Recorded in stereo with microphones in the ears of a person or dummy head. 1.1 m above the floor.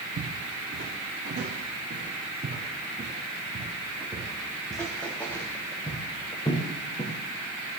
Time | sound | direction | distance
0.2 | footsteps | 60° right (ahead or behind) | 3.5 m